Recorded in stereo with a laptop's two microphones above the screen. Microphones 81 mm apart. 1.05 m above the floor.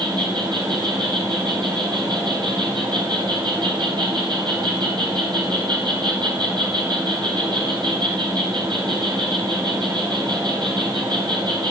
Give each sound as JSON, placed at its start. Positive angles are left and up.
{"t": 0.0, "sound": "an insect", "side_deg": -70, "distance_m": 5.0}